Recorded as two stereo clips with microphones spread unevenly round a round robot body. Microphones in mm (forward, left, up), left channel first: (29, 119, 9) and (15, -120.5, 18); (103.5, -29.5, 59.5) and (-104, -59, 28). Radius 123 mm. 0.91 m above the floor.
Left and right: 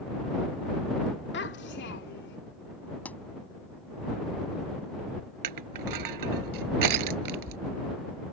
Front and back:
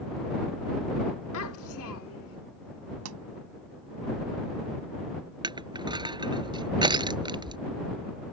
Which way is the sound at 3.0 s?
170° left.